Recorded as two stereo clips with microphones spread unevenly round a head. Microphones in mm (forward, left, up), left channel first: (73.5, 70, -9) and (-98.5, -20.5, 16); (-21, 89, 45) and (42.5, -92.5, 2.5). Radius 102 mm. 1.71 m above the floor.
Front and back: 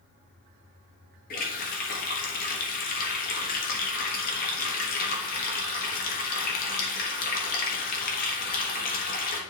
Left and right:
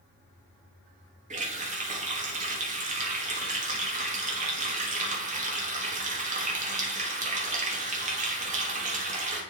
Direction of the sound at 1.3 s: 15° right.